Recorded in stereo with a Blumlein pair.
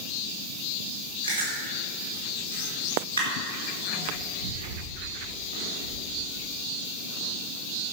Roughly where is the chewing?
Ahead right.